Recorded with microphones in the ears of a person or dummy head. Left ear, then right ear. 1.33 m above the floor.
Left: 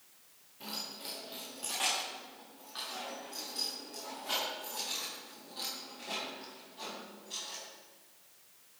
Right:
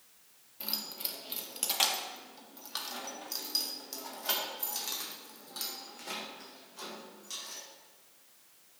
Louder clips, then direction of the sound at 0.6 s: Right 3 dB; 25° right (ahead or behind).